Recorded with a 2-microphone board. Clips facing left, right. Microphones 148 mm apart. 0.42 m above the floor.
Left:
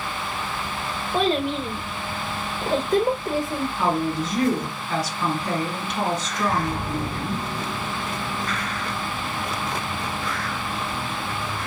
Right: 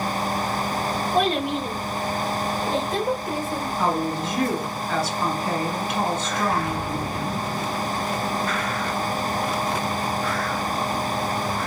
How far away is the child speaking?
About 1.4 m.